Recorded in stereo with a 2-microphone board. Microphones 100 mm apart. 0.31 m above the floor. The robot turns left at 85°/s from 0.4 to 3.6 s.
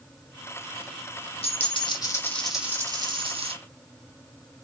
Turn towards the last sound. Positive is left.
turn(degrees=-95)